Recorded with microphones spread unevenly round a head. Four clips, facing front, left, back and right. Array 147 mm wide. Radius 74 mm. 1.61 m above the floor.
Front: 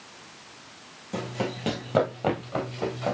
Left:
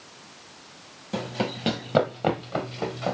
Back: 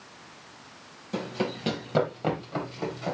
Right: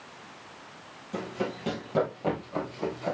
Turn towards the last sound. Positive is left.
turn(degrees=70)